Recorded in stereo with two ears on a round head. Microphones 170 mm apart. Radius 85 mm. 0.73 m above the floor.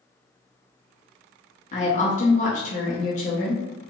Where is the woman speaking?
40° left (ahead or behind), 0.8 m.